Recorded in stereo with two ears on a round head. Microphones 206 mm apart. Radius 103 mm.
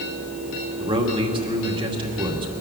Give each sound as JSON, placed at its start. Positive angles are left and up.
{"t": 0.8, "sound": "a man speaking", "side_deg": -25, "distance_m": 2.5}